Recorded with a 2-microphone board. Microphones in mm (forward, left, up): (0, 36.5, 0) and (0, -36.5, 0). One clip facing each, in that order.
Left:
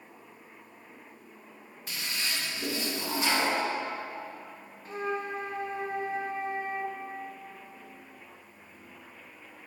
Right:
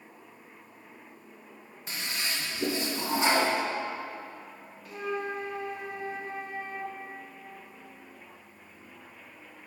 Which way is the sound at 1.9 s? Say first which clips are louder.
Right 1 dB; 30° right (ahead or behind).